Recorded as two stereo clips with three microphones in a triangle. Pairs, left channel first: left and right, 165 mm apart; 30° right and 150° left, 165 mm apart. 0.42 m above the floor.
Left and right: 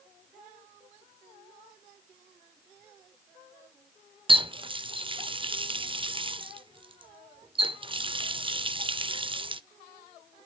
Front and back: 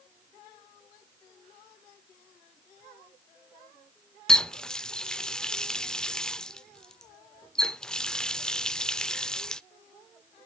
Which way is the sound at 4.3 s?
115° right.